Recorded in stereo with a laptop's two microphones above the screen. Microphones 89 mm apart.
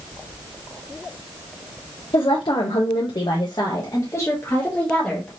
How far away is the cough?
I don't hear a cough.